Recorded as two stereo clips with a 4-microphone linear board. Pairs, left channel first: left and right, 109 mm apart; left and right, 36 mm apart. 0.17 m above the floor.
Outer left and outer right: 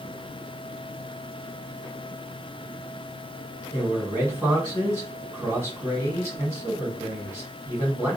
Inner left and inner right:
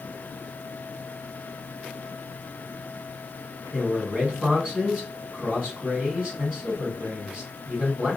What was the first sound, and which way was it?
A man speaking, 25° right (ahead or behind).